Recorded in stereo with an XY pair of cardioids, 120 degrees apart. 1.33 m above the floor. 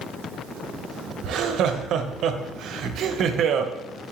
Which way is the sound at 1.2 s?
65° right.